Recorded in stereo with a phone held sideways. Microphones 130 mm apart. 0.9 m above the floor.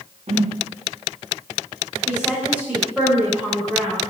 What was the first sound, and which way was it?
A whoosh, 60° right (ahead or behind).